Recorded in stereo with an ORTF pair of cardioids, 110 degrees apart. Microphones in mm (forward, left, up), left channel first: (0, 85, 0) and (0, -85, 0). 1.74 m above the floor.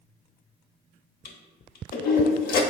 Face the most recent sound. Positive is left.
turn(degrees=60)